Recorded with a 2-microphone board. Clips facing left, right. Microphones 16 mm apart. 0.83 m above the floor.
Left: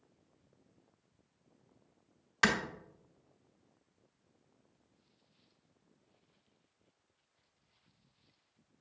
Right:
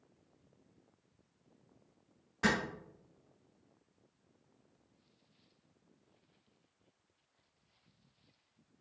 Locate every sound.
2.4 s a clap: 85° left, 1.3 m